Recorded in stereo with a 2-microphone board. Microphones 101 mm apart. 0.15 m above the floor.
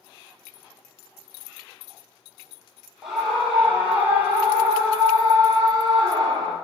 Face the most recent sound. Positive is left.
turn(degrees=-45)  # may be behind; listen again after turning